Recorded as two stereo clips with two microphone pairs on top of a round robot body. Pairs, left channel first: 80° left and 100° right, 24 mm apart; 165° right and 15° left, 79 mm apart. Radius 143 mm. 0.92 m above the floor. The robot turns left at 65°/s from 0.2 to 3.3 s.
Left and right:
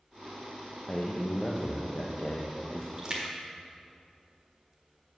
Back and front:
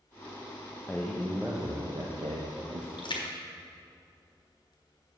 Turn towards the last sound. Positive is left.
turn(degrees=-175)